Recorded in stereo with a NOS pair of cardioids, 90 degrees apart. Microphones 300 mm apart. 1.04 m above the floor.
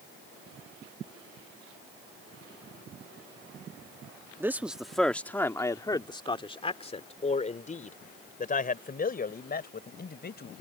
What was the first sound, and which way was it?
A man speaking, 10° right.